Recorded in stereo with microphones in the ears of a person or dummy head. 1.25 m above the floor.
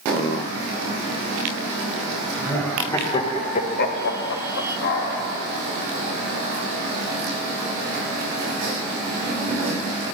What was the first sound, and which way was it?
Laughter, 15° left (ahead or behind).